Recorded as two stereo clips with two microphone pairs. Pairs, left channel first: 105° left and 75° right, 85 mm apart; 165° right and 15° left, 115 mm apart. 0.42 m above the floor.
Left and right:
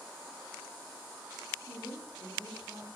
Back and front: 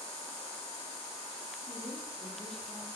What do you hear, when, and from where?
1.7 s a woman speaking: 75° right, 6.5 m